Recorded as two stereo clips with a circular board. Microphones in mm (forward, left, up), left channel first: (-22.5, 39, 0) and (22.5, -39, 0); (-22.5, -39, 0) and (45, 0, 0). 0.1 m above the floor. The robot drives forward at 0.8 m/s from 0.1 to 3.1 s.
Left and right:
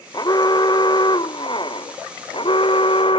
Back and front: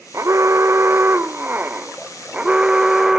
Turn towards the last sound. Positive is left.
turn(degrees=110)